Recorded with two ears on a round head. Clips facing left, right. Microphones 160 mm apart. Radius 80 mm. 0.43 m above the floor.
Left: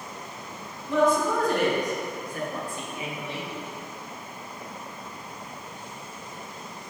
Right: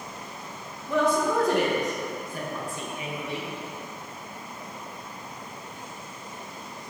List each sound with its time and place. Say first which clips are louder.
0.9 s a woman speaking: left 1 dB; 60° right (ahead or behind), 3 m; by 3.5 s 80° right, 5.5 m